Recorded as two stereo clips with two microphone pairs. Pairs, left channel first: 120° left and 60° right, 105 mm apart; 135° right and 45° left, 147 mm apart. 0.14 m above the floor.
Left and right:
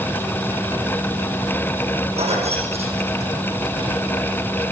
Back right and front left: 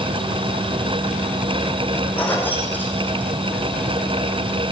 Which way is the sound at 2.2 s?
55° right.